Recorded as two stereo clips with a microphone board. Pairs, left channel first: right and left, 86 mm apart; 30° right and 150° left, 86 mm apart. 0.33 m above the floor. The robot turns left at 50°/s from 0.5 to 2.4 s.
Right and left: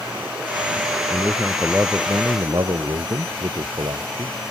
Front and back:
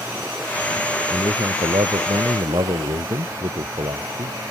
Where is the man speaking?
175° right; by 4.4 s 120° left.